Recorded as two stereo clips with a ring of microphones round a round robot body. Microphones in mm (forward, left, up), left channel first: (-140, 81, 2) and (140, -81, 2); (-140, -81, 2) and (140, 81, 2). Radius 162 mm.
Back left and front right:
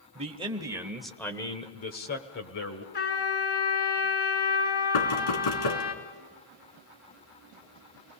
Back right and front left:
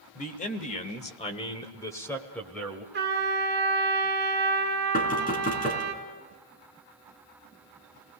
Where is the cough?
I don't hear a cough.